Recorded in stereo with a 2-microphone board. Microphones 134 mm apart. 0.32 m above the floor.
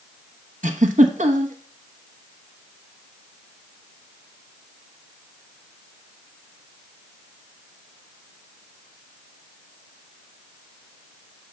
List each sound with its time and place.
0.6 s a giggle: 75° right (ahead or behind), 0.9 m